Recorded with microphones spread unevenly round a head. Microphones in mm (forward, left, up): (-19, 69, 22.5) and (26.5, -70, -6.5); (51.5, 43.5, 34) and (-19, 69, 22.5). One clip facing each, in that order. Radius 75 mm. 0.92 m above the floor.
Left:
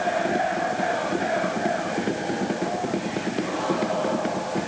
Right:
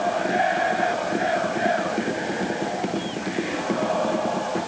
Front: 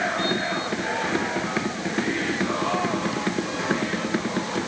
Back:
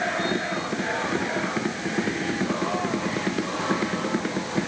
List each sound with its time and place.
Only background noise.